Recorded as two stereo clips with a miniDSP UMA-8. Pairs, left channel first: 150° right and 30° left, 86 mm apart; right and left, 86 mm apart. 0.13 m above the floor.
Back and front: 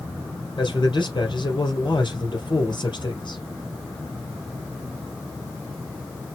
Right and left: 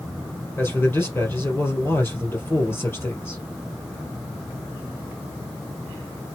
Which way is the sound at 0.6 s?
150° right.